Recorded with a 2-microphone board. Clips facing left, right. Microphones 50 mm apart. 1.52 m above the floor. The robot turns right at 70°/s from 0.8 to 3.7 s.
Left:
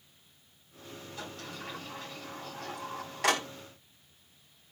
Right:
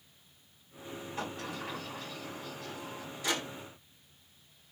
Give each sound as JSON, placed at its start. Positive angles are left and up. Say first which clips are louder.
{"t": 1.2, "sound": "a sliding door", "louder": "right 4 dB", "side_deg": -35, "distance_m": 5.5}